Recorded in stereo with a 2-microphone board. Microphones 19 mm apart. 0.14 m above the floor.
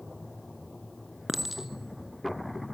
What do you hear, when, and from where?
1.3 s a clink: 15° right (ahead or behind), 1.4 m